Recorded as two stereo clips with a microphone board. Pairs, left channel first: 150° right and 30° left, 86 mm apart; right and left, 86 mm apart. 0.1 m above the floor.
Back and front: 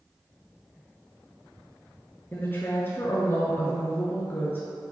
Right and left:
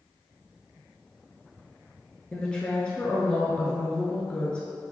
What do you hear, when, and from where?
2.3 s a woman speaking: 150° right, 1.1 m